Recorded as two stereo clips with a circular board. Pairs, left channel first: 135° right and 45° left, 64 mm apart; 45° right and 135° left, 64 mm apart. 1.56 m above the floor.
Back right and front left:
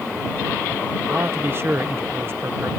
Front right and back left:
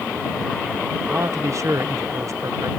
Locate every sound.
1.1 s a man speaking: 95° left